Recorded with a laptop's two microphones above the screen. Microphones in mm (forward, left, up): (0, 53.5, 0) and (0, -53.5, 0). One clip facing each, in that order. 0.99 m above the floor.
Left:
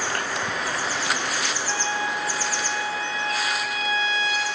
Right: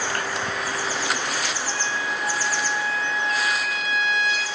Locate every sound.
1.7 s a trumpet: 75° right (ahead or behind), 1.5 m